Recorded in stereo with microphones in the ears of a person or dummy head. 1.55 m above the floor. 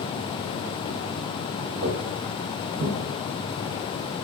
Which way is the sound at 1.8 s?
45° right (ahead or behind).